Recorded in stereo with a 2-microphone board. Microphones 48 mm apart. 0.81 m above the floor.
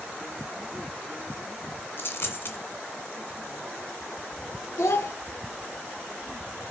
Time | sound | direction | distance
2.0 | a dropped coin | 60° left (ahead or behind) | 1.6 m
4.8 | a child speaking | 75° left (ahead or behind) | 0.8 m